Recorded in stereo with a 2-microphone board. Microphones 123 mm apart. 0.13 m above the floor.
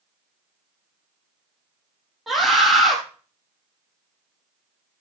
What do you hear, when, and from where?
2.3 s a scream: centre (ahead or behind), 5 m